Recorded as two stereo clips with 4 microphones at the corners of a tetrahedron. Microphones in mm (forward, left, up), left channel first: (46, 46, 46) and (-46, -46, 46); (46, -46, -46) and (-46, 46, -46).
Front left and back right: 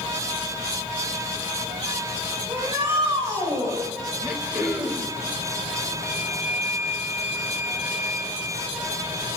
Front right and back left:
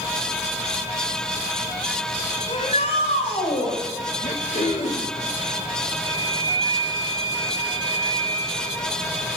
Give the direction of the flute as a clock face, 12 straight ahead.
7 o'clock.